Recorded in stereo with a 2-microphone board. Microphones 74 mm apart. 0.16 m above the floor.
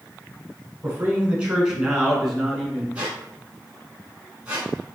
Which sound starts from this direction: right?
A man speaking, at 0.8 s.